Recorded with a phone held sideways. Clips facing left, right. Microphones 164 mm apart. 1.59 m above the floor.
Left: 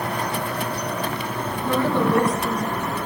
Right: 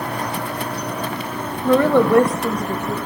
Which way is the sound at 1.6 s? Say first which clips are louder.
Right 7 dB; 75° right (ahead or behind).